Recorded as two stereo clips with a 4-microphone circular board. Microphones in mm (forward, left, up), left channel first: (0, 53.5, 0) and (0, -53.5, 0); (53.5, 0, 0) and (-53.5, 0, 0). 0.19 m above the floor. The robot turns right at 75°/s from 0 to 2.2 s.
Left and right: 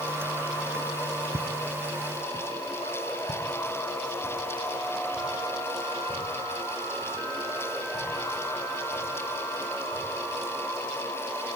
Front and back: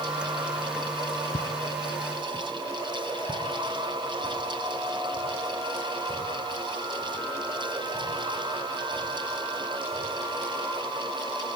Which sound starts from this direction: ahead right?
Footsteps, at 1.3 s.